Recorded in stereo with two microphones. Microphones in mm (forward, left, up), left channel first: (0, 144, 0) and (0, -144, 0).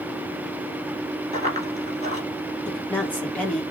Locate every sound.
1.3 s running footsteps: 25° right (ahead or behind), 1.7 m
2.6 s a woman speaking: 5° left (ahead or behind), 1.9 m